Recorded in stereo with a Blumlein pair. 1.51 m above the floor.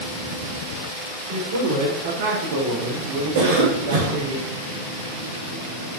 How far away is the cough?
About 3 m.